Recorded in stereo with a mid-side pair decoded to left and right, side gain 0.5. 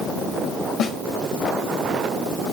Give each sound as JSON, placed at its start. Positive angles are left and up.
{"t": 0.8, "sound": "a snare drum", "azimuth_deg": 55, "distance_m": 1.5}